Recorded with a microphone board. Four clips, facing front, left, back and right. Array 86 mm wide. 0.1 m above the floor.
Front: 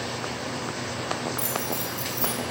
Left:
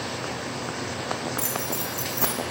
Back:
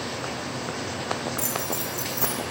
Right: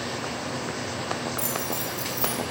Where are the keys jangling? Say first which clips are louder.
Even, even; 105° left, 4.5 m; by 2.4 s 120° left, 4 m.